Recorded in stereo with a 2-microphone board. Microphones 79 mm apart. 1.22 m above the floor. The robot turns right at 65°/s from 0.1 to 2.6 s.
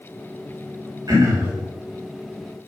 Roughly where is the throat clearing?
Ahead right.